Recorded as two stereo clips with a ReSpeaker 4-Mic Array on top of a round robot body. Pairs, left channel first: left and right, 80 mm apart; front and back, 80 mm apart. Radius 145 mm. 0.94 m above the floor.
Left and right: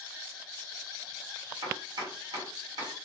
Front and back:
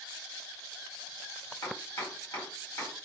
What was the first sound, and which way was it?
Chopping, 60° right.